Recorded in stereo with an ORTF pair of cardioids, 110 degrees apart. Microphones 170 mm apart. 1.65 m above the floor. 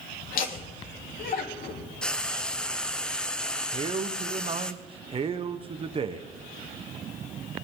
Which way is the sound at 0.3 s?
55° left.